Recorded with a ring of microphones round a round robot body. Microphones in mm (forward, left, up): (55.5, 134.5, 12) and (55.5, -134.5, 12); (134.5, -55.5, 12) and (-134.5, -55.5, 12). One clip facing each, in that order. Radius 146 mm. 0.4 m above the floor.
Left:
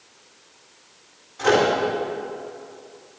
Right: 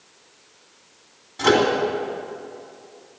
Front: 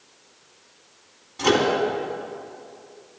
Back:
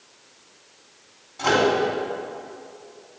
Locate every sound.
1.4 s a microwave: 60° right, 2.5 m